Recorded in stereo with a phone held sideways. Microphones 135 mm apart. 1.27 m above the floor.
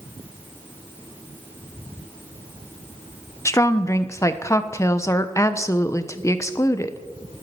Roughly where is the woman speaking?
Left.